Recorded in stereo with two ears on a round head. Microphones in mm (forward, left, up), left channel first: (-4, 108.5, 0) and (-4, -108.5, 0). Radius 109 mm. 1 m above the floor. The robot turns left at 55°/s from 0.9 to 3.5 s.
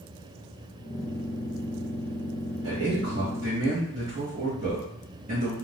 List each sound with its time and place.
2.6 s a man speaking: 90° right, 1.0 m; by 5.5 s 140° right, 1.0 m